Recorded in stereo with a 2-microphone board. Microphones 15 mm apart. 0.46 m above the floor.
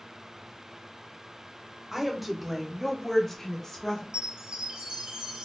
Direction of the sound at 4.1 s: 75° right (ahead or behind).